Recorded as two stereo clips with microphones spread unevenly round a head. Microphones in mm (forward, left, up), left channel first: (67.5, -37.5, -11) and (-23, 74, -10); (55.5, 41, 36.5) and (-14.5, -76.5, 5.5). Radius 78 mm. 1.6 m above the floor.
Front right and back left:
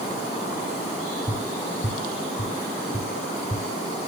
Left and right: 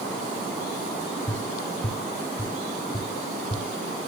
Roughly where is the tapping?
Ahead.